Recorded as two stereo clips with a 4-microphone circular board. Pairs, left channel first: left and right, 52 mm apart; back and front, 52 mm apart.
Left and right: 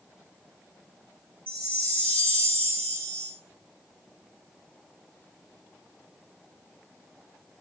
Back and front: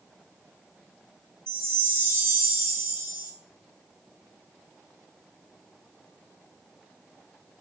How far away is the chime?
About 1.1 m.